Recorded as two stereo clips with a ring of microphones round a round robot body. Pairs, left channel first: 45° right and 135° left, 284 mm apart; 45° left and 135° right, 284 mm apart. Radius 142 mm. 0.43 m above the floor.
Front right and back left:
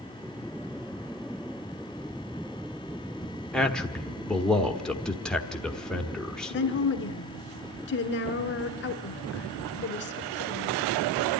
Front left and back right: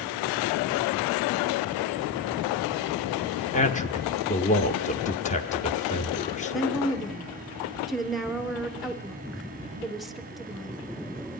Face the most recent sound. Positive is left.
turn(degrees=-45)